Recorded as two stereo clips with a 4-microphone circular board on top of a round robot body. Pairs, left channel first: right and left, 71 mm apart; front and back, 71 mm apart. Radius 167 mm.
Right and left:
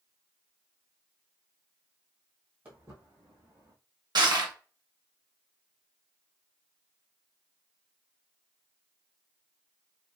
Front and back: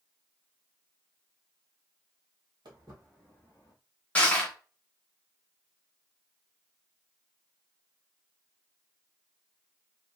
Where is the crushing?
70° left, 0.7 m.